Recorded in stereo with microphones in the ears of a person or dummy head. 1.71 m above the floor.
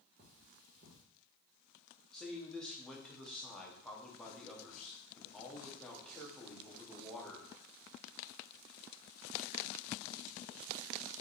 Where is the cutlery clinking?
40° right (ahead or behind), 1.1 m.